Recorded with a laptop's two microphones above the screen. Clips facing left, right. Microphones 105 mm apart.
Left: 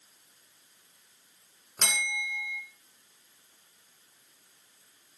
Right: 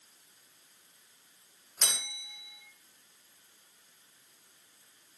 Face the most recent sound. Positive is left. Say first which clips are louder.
# left 8 dB
turn(degrees=85)